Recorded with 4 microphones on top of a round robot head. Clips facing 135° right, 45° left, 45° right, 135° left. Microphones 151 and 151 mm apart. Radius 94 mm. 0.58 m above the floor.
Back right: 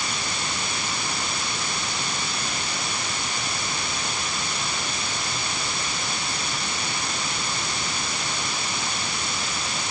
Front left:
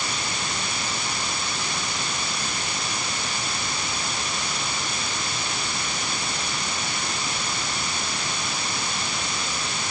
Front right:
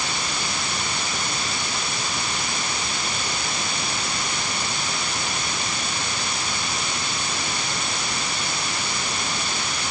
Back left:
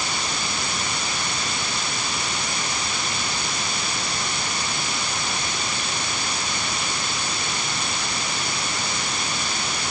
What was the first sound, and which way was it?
Only background noise.